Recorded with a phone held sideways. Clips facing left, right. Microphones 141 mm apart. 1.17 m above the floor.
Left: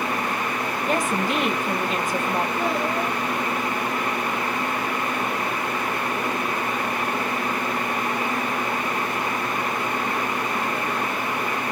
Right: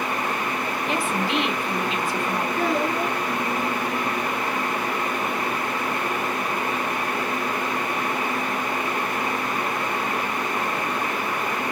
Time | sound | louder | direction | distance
0.9 | a woman speaking | left 2 dB | 45° left (ahead or behind) | 0.9 m
2.6 | a child speaking | right 1 dB | 45° right (ahead or behind) | 2.5 m